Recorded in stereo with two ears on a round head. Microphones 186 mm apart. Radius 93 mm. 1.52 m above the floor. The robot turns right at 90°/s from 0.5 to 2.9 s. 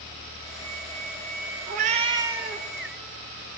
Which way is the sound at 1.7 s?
75° right.